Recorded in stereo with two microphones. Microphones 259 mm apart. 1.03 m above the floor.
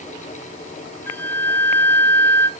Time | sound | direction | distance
1.1 | a flute | 10° left (ahead or behind) | 0.6 m